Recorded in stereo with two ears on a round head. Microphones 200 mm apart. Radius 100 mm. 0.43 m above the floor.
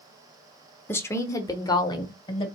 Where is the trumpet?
I don't hear a trumpet.